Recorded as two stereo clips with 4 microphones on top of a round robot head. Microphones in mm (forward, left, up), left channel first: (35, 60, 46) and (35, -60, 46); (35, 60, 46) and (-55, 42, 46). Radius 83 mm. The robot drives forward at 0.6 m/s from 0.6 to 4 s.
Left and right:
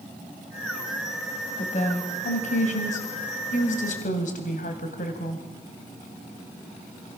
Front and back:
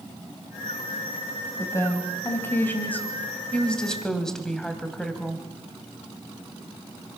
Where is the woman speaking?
70° left, 3.5 m; by 5.5 s 95° left, 3 m.